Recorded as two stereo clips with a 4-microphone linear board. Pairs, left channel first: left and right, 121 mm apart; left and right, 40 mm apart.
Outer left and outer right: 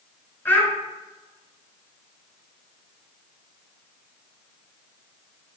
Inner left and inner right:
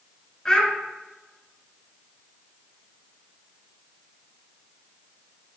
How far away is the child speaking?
About 1.3 m.